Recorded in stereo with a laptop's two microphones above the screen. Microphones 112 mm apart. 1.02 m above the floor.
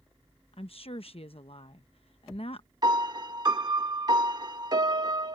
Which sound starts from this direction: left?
A woman speaking, at 0.5 s.